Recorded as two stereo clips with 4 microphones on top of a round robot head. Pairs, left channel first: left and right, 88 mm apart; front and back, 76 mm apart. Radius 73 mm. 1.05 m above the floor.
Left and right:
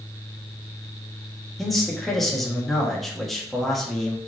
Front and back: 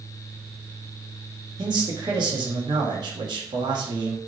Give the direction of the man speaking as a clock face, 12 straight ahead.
6 o'clock.